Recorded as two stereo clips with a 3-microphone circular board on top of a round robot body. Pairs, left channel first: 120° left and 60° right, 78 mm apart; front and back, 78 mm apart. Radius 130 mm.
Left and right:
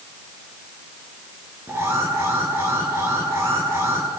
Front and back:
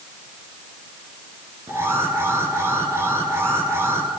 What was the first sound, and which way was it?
An alarm, 125° right.